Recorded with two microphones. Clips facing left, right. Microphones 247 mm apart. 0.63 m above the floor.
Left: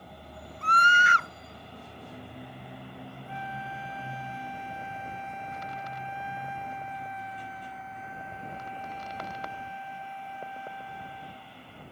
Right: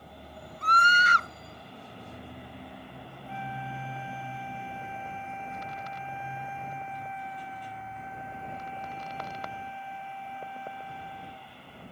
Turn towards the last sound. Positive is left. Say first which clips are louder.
# right 4 dB
turn(degrees=75)  # may be behind; listen again after turning